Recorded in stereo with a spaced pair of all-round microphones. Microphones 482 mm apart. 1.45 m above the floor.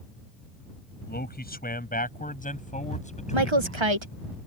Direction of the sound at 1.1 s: 20° left (ahead or behind).